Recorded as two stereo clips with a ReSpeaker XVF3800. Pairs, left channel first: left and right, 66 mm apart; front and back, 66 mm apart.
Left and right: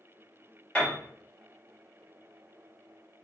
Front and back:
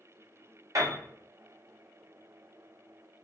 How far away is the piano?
About 2 m.